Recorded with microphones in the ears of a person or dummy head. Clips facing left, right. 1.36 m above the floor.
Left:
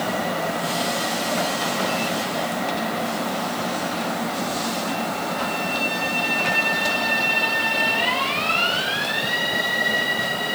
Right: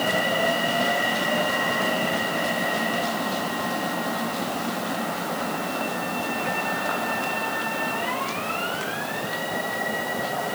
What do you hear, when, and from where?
Only background noise.